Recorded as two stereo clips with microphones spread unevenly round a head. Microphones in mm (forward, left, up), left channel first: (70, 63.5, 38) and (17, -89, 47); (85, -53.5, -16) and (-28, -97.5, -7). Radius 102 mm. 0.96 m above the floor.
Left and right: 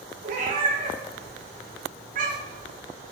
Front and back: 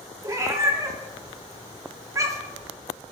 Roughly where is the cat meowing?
Right.